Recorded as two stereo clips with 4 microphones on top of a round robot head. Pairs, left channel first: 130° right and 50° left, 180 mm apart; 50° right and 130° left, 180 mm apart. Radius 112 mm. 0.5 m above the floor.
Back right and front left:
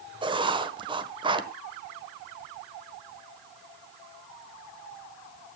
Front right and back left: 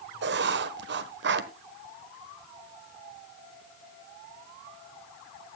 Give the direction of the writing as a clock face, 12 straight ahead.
8 o'clock.